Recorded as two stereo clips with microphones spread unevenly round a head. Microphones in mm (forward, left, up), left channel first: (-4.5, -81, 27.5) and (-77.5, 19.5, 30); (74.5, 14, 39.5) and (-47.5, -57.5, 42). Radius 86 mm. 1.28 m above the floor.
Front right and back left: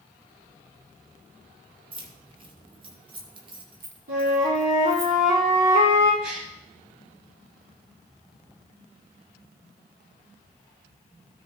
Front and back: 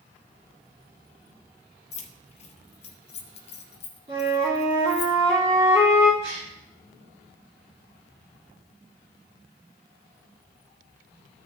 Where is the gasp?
145° left, 4.5 m.